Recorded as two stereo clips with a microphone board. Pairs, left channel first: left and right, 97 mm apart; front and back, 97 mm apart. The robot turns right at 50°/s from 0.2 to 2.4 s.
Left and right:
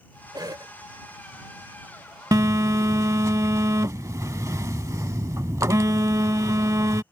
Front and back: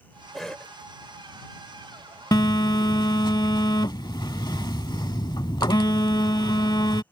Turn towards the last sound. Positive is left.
turn(degrees=-35)